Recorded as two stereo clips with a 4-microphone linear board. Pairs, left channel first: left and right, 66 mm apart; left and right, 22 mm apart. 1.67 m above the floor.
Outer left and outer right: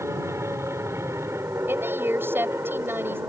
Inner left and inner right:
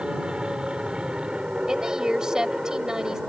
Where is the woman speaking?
35° right (ahead or behind).